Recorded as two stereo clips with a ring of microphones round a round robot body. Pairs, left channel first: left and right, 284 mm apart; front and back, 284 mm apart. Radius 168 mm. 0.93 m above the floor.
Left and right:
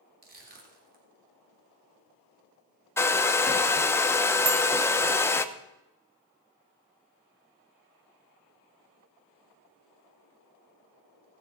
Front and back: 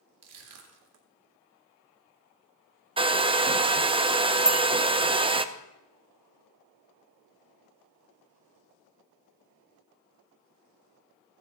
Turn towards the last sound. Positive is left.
turn(degrees=-90)